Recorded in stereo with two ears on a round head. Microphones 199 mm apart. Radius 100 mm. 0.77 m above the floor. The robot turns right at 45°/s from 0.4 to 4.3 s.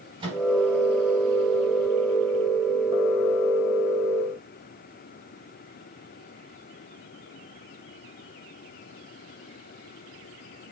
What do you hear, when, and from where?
0.2 s a microwave: 25° right (ahead or behind), 4.5 m; by 0.4 s 20° right (ahead or behind), 4.5 m